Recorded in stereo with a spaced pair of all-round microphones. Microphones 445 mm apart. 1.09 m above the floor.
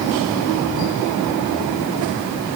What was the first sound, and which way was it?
Only background noise.